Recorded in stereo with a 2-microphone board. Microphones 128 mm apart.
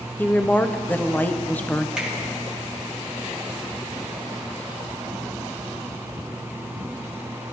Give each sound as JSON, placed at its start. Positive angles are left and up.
{"t": 0.2, "sound": "a woman speaking", "side_deg": 15, "distance_m": 0.7}
{"t": 2.0, "sound": "a finger snap", "side_deg": -5, "distance_m": 2.0}